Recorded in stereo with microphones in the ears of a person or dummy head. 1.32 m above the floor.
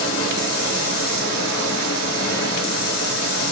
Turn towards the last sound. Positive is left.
turn(degrees=65)  # may be behind; listen again after turning